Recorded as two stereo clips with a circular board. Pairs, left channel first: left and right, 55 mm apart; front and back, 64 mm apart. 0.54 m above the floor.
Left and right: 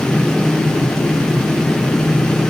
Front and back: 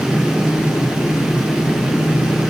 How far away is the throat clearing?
No throat clearing in this recording.